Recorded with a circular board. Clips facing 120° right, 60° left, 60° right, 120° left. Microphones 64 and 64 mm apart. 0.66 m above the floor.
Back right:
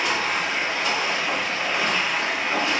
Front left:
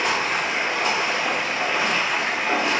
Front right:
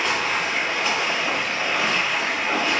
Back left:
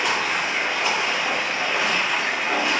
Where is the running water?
35° left, 1.1 m.